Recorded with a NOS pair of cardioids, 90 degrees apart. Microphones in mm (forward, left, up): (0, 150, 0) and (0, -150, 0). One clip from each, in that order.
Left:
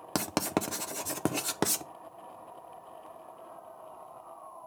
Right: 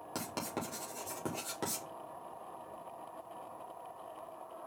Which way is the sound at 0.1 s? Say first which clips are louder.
Left 9 dB; 70° left.